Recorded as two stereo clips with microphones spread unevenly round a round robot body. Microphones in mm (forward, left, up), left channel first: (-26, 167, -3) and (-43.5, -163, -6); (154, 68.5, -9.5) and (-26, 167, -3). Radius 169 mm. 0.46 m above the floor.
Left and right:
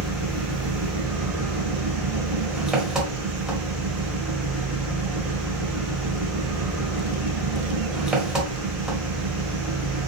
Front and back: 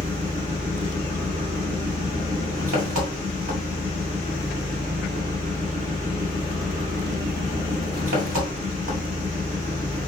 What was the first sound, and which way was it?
An engine running, straight behind.